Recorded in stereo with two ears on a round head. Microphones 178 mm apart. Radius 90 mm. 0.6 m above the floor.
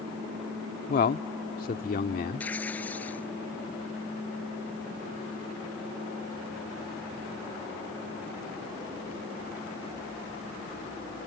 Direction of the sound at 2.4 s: 5° left (ahead or behind).